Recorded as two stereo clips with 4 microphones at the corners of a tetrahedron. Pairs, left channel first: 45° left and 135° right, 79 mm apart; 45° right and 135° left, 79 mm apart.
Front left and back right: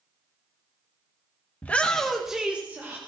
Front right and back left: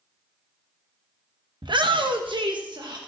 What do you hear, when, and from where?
1.6 s a shout: 115° left, 1.2 m; by 3.0 s 165° left, 1.3 m